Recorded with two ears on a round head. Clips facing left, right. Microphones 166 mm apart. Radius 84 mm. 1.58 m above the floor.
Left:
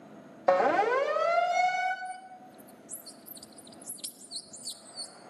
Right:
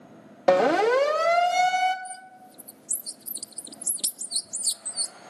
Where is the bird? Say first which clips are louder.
Even; 65° right (ahead or behind), 1.0 m.